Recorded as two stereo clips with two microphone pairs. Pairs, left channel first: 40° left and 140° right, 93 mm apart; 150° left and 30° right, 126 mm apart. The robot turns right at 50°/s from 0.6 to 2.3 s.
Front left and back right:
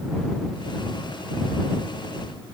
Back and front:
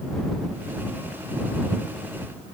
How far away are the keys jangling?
No keys jangling in this recording.